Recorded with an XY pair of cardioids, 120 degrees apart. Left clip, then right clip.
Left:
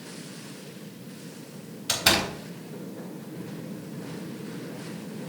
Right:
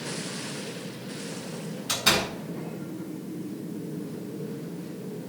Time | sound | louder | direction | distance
1.9 | a door slam | left 1 dB | 35° left | 4 m